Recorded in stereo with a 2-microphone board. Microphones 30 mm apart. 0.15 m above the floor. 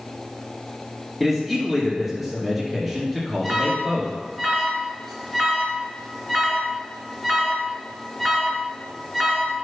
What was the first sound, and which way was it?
A man speaking, 5° right (ahead or behind).